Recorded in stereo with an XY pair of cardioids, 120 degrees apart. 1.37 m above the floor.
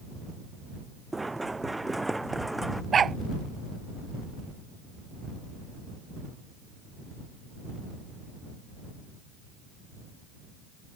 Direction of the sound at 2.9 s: 35° right.